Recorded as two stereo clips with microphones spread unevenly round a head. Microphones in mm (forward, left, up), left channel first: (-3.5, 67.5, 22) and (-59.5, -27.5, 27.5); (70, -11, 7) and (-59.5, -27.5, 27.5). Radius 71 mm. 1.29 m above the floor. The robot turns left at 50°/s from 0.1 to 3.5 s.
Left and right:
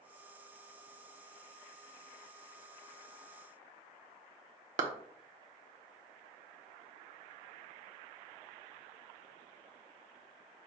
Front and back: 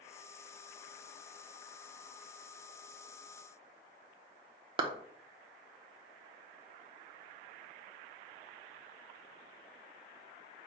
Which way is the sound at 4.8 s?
120° right.